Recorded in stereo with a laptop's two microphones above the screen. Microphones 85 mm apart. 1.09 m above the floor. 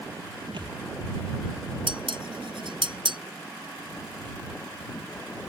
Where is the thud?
65° right (ahead or behind).